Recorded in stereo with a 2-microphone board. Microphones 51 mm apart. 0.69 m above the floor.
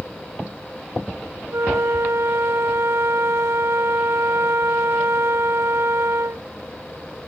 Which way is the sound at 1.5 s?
60° right (ahead or behind).